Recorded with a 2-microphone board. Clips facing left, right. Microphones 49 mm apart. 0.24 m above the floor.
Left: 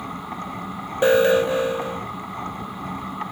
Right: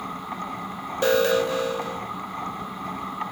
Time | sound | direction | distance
1.0 | an alarm | 25° left (ahead or behind) | 0.8 m